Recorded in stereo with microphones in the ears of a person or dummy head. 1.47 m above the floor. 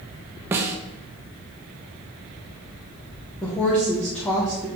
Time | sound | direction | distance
0.5 | a snare drum | 15° right (ahead or behind) | 0.7 m
3.4 | a woman speaking | 5° left (ahead or behind) | 1.2 m